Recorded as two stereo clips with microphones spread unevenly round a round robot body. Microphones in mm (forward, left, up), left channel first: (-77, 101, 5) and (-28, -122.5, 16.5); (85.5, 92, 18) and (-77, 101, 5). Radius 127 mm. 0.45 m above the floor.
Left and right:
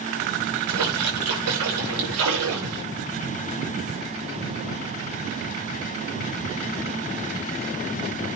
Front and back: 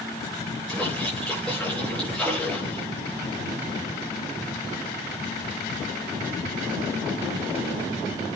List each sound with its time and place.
0.7 s a splash: 90° right, 6.5 m